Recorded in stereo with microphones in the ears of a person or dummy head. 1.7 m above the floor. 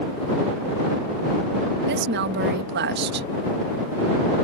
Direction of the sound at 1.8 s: 65° right (ahead or behind).